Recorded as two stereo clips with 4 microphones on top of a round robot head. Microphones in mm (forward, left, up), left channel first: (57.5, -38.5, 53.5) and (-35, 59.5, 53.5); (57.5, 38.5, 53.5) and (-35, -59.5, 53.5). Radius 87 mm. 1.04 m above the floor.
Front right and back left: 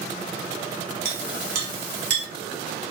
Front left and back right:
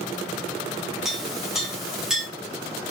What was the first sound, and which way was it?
A clink, 140° left.